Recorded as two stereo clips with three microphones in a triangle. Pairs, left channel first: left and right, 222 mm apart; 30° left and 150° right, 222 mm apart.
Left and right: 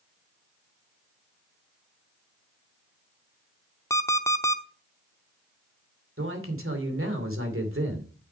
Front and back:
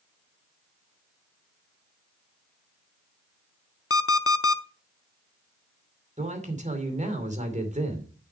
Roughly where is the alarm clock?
Ahead.